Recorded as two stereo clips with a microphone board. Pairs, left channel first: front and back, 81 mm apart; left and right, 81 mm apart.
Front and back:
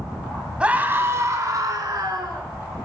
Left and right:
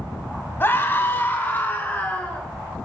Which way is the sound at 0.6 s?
115° left.